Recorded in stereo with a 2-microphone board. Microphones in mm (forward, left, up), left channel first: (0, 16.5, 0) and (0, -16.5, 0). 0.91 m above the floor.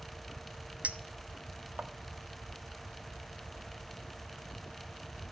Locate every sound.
0.8 s a clink: 40° right (ahead or behind), 0.8 m